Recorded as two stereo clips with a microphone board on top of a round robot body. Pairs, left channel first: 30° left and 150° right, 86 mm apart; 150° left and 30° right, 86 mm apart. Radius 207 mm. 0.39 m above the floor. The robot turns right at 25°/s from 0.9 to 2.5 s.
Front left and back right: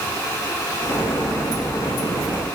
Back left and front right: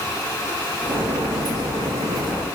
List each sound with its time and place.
Only background noise.